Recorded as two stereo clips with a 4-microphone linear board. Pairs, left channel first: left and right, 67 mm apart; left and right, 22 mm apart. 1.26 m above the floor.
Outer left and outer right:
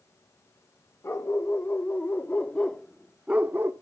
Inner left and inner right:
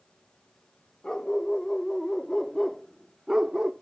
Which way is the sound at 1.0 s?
40° left (ahead or behind).